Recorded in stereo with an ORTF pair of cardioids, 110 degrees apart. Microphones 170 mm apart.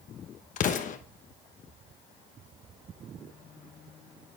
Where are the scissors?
I don't hear scissors.